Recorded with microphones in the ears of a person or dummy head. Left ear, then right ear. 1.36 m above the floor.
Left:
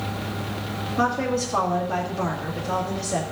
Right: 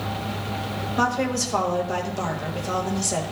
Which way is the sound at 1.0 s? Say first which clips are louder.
Even; 70° right (ahead or behind).